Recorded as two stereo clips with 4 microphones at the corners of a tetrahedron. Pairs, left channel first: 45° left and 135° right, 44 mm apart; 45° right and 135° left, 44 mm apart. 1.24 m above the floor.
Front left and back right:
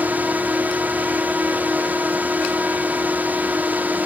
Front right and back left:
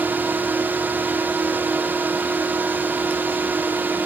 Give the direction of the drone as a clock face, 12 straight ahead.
6 o'clock.